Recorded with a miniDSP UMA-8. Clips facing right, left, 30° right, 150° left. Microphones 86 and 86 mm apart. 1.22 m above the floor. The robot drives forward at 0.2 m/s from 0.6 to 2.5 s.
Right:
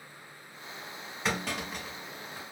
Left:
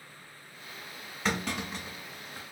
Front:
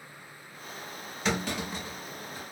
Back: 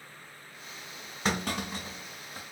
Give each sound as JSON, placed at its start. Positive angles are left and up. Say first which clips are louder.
{"t": 1.2, "sound": "a clunk", "louder": "left 1 dB, even", "azimuth_deg": -175, "distance_m": 1.5}